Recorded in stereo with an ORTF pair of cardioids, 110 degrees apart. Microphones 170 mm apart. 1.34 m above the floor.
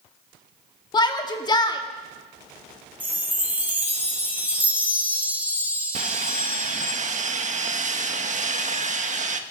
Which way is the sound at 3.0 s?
10° right.